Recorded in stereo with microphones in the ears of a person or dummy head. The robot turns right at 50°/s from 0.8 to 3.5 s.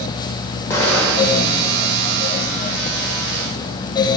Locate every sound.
0.7 s an explosion: 165° left, 2.0 m; by 1.5 s 165° right, 2.0 m